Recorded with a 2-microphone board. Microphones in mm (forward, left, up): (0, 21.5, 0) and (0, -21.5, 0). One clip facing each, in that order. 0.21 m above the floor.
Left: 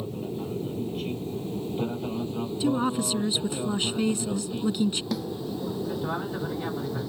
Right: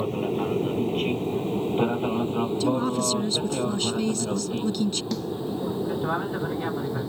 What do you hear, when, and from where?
0.0 s an aircraft: 55° right (ahead or behind); by 7.1 s 10° right (ahead or behind)
2.6 s a woman speaking: 15° left (ahead or behind)
5.1 s a snare drum: 10° left (ahead or behind)